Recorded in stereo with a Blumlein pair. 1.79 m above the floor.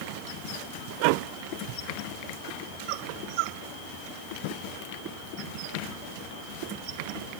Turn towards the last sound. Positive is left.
No sound to turn to.